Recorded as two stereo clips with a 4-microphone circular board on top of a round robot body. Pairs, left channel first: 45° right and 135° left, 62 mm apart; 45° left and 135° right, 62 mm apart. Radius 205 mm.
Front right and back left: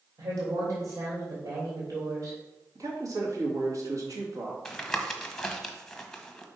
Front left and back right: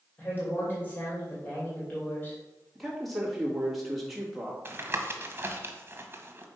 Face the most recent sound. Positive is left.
turn(degrees=-125)